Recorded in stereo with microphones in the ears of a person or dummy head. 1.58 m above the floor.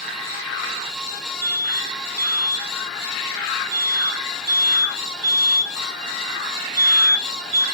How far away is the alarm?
About 4 m.